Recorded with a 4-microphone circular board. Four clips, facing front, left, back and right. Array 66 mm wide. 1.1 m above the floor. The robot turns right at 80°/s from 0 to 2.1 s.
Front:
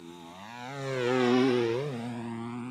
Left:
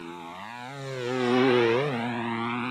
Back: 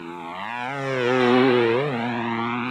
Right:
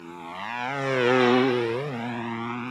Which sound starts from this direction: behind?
A motorcycle, at 0.0 s.